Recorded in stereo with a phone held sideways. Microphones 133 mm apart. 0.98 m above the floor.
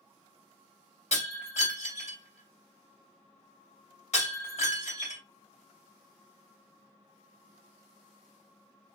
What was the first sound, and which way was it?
Breaking glass, 55° left (ahead or behind).